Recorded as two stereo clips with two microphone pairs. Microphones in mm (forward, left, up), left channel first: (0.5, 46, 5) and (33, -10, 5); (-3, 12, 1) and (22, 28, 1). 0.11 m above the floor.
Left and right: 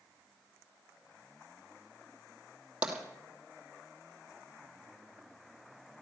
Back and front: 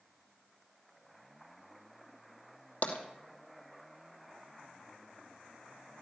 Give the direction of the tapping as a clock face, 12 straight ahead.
4 o'clock.